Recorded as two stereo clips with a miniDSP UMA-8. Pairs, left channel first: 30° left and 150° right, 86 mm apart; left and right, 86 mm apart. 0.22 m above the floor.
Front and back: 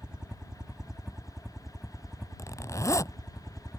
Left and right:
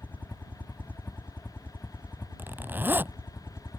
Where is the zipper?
25° right.